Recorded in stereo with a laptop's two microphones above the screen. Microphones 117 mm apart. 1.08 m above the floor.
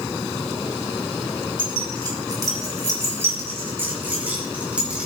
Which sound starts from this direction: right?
Keys jangling, at 1.6 s.